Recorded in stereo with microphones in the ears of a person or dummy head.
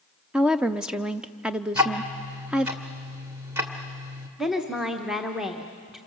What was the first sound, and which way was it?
A woman speaking, 5° right (ahead or behind).